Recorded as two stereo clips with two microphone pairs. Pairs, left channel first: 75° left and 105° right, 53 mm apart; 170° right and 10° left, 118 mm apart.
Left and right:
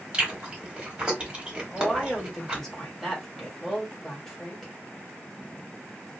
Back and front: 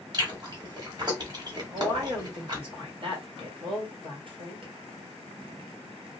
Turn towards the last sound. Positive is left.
turn(degrees=-5)